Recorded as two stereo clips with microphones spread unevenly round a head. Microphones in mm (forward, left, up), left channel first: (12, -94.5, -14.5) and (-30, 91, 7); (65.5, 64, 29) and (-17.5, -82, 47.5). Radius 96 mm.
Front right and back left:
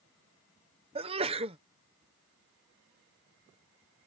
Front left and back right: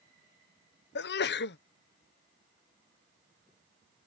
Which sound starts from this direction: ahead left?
A sneeze, at 0.9 s.